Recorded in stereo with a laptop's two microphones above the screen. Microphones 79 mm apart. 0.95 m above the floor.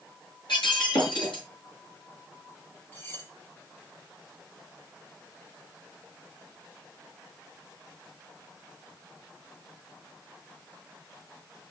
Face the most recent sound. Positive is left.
turn(degrees=30)  # may be behind; listen again after turning